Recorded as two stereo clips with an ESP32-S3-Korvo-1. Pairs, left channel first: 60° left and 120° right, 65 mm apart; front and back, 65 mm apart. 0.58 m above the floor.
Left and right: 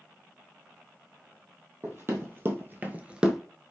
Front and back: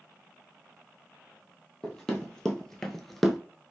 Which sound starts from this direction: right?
Running footsteps, at 1.8 s.